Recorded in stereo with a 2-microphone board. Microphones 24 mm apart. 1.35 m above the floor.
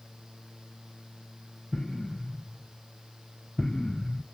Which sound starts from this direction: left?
An explosion, at 1.7 s.